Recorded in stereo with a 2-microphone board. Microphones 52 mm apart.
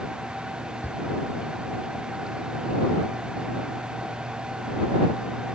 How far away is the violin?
No violin in this recording.